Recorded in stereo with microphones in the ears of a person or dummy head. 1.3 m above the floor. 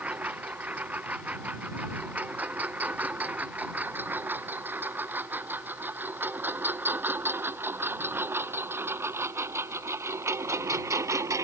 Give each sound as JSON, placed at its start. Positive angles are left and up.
{"t": 0.0, "sound": "a lawn mower", "side_deg": -5}